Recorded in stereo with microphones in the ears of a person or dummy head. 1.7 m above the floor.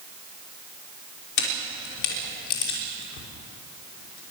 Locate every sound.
1.4 s a camera shutter: 70° left (ahead or behind), 5.5 m